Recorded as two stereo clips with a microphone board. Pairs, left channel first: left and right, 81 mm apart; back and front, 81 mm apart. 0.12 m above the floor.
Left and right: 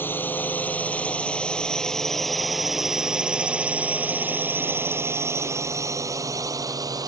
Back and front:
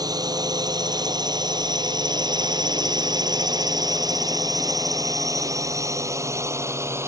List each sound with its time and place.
0.0 s a drone: 25° left; by 7.1 s 55° right